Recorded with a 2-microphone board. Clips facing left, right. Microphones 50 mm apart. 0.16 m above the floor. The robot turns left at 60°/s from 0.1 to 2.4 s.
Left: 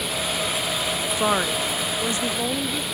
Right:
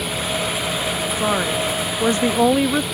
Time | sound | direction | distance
1.2 | a woman speaking | 15° left | ?